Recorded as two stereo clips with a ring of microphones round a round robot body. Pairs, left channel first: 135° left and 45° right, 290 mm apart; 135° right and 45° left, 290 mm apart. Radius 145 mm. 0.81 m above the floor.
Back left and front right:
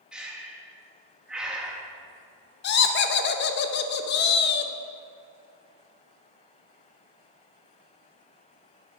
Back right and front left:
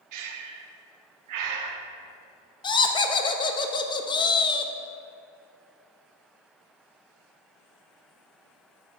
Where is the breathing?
40° left, 0.7 m.